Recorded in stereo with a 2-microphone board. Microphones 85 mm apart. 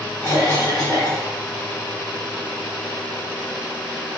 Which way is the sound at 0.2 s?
25° left (ahead or behind).